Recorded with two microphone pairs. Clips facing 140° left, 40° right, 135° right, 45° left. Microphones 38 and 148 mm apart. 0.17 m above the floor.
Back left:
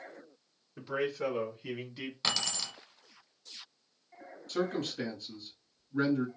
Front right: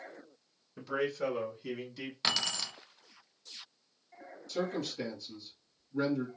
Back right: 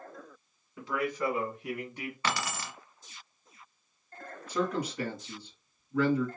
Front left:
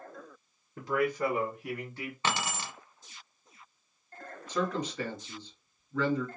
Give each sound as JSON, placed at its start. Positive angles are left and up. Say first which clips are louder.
{"t": 0.8, "sound": "a man speaking", "louder": "even, front left 3 dB", "azimuth_deg": 55, "distance_m": 1.6}
{"t": 2.2, "sound": "keys jangling", "louder": "front right 1 dB, front left 1 dB", "azimuth_deg": 35, "distance_m": 1.0}
{"t": 4.5, "sound": "a man speaking", "louder": "back left 2 dB, back right 1 dB", "azimuth_deg": 150, "distance_m": 2.0}